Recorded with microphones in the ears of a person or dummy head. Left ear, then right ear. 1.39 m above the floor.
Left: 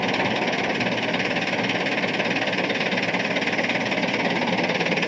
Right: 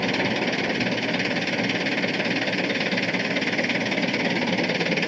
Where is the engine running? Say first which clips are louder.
Left 1 dB; 40° left (ahead or behind).